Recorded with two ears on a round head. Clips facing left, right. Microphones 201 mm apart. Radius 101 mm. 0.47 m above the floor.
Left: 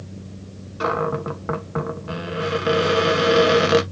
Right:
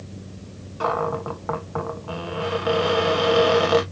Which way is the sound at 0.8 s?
25° left (ahead or behind).